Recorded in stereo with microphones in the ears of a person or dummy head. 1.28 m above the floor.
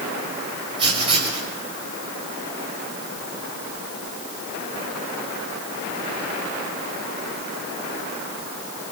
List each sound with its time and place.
0.8 s writing: 30° right (ahead or behind), 6 m